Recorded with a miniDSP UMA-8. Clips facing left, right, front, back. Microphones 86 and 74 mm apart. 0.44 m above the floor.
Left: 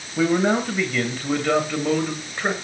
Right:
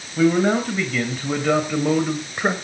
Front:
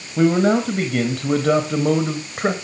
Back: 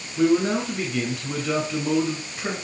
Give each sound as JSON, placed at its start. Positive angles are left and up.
{"t": 0.2, "sound": "a man speaking", "azimuth_deg": 10, "distance_m": 3.0}